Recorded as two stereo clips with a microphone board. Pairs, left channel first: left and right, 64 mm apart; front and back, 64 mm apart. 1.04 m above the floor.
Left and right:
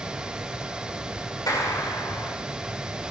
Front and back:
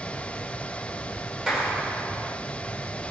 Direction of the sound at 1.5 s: 100° left.